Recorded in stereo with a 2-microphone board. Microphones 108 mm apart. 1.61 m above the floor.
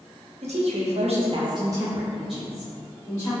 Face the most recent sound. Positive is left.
turn(degrees=20)  # may be behind; listen again after turning